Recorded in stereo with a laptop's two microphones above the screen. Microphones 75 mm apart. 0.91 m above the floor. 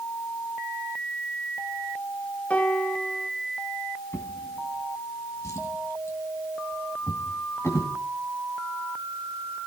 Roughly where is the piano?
Centre.